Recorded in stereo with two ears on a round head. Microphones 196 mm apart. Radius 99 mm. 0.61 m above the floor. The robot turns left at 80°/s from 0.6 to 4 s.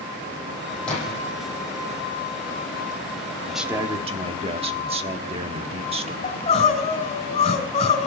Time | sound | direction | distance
0.9 | a splash | 5° left (ahead or behind) | 9 m
3.5 | a man speaking | 5° left | 1.1 m
6.2 | crying | 30° left (ahead or behind) | 3 m